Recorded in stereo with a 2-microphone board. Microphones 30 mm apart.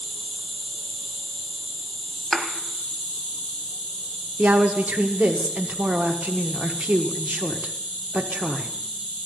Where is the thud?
10° left (ahead or behind), 1.6 m.